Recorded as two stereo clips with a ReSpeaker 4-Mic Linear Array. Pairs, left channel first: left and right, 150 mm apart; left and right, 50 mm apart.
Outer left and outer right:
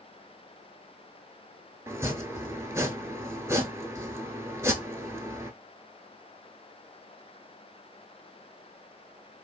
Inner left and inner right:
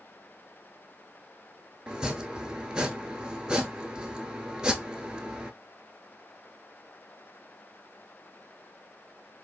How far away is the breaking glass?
I don't hear breaking glass.